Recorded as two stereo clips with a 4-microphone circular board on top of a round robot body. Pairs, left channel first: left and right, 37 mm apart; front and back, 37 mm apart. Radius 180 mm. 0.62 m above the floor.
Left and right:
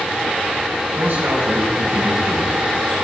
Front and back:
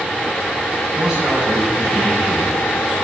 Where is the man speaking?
110° right, 6 m.